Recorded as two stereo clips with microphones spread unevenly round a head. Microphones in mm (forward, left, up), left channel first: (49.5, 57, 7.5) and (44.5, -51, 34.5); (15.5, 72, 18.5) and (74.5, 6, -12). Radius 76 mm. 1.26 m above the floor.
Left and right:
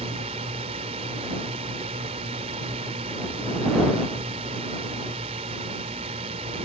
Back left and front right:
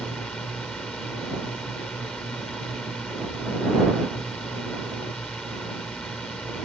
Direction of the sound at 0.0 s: 145° right.